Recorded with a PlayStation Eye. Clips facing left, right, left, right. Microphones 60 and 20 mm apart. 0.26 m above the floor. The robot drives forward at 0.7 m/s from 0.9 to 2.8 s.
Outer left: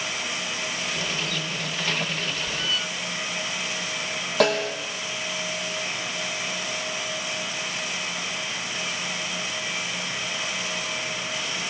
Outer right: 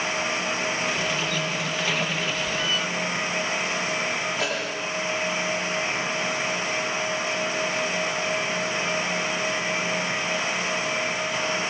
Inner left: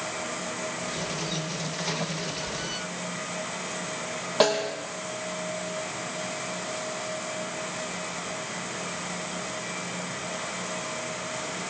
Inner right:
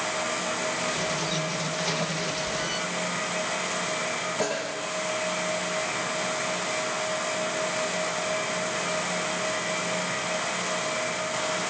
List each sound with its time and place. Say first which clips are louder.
4.4 s a snare drum: outer left 6 dB, inner left 10 dB; 65° left (ahead or behind), 5 m